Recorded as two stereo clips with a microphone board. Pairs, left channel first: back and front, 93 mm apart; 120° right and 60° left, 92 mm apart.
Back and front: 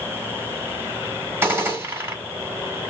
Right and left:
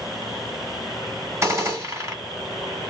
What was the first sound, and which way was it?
A gunshot, 45° left.